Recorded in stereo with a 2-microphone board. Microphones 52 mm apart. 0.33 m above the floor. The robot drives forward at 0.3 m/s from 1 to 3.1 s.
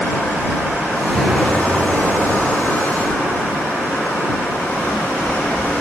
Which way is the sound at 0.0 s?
55° left (ahead or behind).